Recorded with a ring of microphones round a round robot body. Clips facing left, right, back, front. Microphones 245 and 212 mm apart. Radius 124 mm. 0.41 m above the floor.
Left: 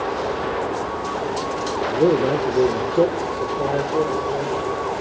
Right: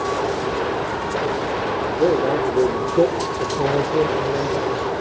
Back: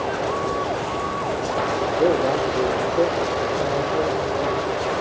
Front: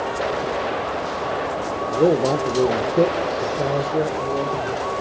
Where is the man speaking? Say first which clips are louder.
Left 1 dB, front 3 dB; 50° left, 1.3 m; by 4.8 s 65° right, 2 m.